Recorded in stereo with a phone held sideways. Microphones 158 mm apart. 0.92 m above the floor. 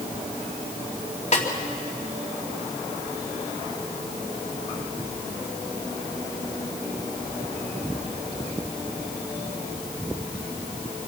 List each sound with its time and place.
1.3 s a snare drum: 50° left (ahead or behind), 2.5 m